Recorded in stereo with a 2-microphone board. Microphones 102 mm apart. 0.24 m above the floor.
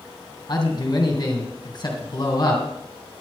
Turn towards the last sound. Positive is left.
turn(degrees=50)  # may be behind; listen again after turning